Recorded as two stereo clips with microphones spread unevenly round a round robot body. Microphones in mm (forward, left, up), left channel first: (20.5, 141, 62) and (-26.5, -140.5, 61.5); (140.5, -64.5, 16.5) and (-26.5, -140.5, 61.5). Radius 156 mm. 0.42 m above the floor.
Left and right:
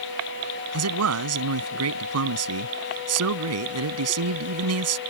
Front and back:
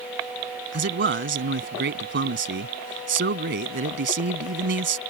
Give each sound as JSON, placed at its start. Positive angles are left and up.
{"t": 0.7, "sound": "a man speaking", "azimuth_deg": -135}